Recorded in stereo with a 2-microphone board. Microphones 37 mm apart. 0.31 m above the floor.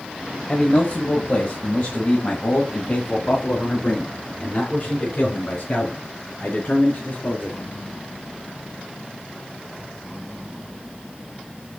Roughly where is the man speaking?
Left.